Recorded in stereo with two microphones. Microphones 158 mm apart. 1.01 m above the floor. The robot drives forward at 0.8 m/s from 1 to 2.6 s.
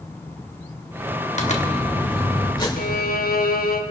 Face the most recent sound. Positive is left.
turn(degrees=70)  # may be behind; listen again after turning